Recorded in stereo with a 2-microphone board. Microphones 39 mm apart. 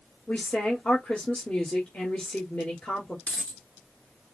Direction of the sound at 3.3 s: 35° left (ahead or behind).